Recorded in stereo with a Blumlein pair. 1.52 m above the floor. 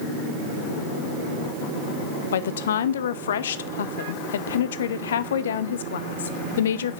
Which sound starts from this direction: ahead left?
A woman speaking, at 2.3 s.